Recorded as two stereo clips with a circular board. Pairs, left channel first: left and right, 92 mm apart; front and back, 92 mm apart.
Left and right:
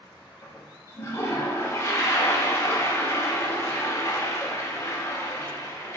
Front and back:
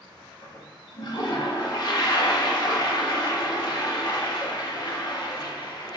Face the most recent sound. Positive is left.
turn(degrees=35)